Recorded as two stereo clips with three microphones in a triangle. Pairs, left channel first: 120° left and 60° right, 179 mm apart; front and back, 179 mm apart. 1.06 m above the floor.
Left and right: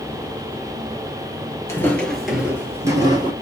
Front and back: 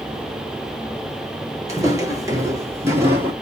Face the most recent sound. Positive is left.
turn(degrees=-110)